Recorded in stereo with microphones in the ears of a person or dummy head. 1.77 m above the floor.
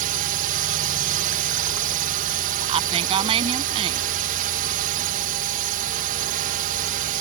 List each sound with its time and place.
0.0 s a drone: 40° right (ahead or behind)
2.7 s a woman speaking: 30° right (ahead or behind)